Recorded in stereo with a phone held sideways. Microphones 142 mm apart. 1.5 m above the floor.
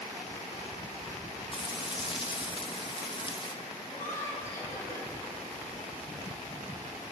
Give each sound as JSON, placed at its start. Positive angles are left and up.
{"t": 1.5, "sound": "frying", "side_deg": 35, "distance_m": 1.7}
{"t": 3.9, "sound": "laughter", "side_deg": 20, "distance_m": 10.0}